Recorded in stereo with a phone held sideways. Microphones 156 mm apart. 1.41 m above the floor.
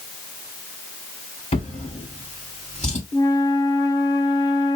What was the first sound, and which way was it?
A drawer, 45° left (ahead or behind).